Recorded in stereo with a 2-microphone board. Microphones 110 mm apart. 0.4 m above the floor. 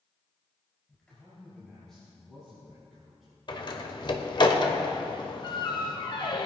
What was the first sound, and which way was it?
A man speaking, 15° left (ahead or behind).